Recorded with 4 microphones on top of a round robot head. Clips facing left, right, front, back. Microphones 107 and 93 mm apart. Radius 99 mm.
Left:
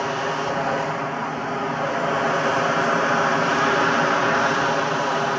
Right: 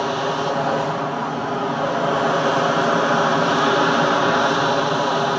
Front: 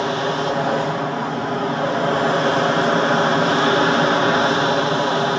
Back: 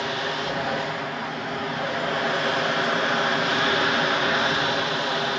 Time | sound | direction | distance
0.0 | an aircraft | 25° right | ?